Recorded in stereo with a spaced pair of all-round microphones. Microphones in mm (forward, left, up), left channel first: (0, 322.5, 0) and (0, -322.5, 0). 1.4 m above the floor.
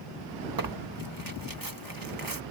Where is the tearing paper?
30° right (ahead or behind).